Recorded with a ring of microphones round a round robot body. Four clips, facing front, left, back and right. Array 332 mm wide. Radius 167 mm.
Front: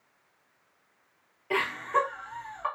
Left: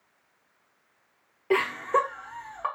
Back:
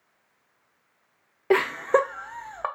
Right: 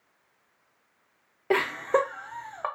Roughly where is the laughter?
Behind.